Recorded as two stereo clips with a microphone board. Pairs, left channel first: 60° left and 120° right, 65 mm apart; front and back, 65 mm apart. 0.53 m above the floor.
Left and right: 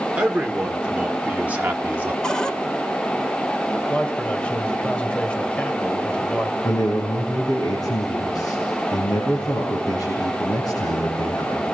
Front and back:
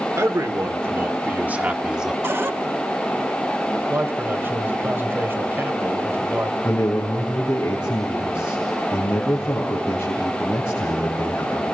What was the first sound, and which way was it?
A man speaking, 170° left.